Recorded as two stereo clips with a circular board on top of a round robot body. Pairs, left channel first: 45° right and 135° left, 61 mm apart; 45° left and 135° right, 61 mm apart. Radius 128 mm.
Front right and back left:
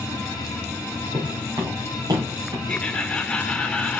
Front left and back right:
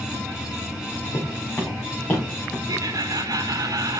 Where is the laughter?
120° right, 1.2 m.